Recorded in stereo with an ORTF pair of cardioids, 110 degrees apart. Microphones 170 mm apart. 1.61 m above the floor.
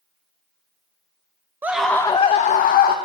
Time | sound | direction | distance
1.6 | a scream | 10° right | 0.5 m